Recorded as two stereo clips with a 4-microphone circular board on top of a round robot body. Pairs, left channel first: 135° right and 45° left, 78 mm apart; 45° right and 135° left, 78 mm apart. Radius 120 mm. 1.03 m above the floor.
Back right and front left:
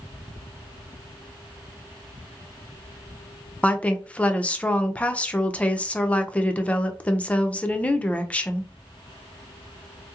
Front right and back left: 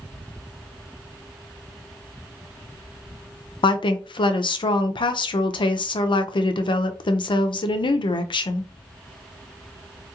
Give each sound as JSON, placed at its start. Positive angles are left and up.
{"t": 3.6, "sound": "a woman speaking", "azimuth_deg": -60, "distance_m": 0.5}